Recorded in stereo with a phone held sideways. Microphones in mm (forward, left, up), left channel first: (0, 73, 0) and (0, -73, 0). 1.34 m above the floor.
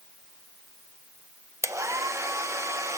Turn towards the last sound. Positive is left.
turn(degrees=-20)  # may be behind; listen again after turning